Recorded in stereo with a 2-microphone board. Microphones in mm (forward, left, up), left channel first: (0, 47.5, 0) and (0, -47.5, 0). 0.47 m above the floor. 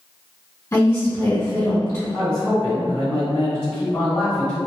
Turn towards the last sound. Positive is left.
turn(degrees=30)  # may be behind; listen again after turning